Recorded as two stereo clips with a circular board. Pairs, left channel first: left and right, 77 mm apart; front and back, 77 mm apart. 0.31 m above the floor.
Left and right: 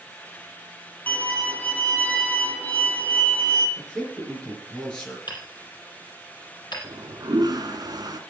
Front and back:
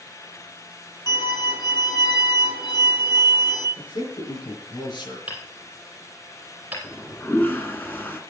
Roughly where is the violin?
Ahead.